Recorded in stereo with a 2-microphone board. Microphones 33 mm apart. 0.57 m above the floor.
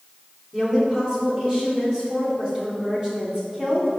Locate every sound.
0.5 s a woman speaking: 20° right (ahead or behind), 1.8 m